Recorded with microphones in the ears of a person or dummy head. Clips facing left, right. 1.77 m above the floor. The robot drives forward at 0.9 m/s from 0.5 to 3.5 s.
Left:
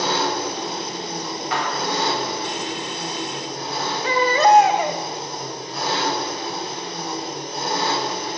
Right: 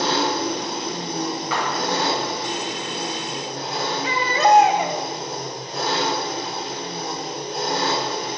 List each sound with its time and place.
0.0 s an engine running: 65° right (ahead or behind), 4 m; by 8.4 s 40° right (ahead or behind), 6 m
1.5 s a clap: 75° right (ahead or behind), 3 m; by 1.9 s 70° right (ahead or behind), 3 m
4.0 s a baby crying: 50° left (ahead or behind), 2 m